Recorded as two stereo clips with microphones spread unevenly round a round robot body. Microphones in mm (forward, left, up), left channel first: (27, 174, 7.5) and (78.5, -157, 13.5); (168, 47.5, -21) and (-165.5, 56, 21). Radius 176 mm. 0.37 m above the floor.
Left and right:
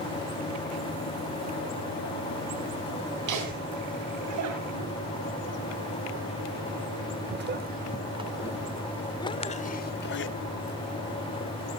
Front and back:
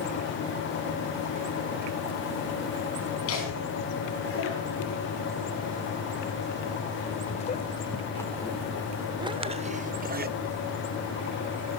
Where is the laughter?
50° right, 3.5 m; by 10.3 s 125° left, 1.4 m.